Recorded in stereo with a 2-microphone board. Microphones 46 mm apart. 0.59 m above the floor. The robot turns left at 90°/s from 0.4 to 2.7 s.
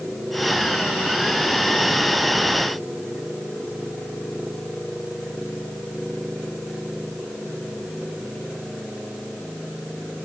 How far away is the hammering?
I don't hear hammering.